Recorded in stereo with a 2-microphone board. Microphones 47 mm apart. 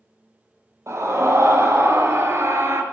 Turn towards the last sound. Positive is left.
turn(degrees=-65)  # may be behind; listen again after turning